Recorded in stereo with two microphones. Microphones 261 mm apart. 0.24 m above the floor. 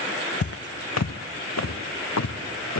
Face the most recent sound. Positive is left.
turn(degrees=85)